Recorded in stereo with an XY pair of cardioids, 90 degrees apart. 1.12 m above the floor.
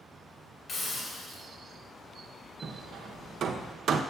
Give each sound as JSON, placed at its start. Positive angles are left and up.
{"t": 0.7, "sound": "a hiss", "azimuth_deg": 50, "distance_m": 1.9}
{"t": 2.6, "sound": "hammering", "azimuth_deg": -65, "distance_m": 0.5}